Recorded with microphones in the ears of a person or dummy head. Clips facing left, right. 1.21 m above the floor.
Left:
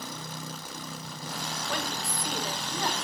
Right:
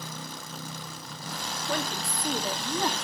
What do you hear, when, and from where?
1.7 s a woman speaking: 30° right (ahead or behind), 2 m